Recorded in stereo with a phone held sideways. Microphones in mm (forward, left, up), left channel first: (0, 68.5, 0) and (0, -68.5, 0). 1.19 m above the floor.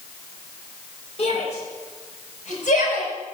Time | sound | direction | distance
1.2 | a shout | 50° left (ahead or behind) | 6 m